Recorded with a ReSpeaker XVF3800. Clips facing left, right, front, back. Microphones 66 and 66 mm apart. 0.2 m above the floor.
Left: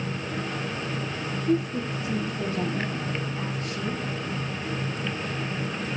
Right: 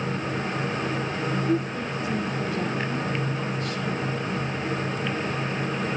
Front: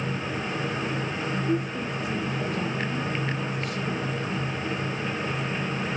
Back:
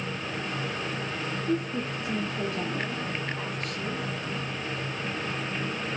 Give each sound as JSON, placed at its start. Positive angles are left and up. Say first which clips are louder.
{"t": 1.5, "sound": "a woman speaking", "louder": "even, back 1 dB", "azimuth_deg": 150, "distance_m": 5.0}